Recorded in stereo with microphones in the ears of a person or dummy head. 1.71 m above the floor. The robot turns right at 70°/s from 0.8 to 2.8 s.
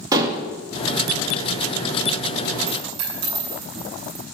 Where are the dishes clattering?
20° right (ahead or behind), 1.9 m.